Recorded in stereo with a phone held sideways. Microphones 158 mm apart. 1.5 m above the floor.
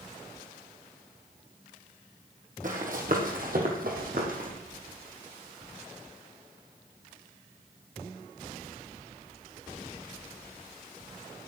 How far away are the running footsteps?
About 3 m.